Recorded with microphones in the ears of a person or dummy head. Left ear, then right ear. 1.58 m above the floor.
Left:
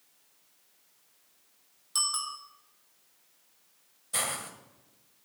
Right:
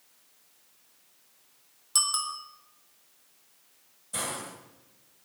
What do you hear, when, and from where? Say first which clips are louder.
1.9 s a bicycle bell: right 3 dB; 5° right (ahead or behind), 2 m
4.1 s a hiss: left 2 dB; 35° left (ahead or behind), 1.9 m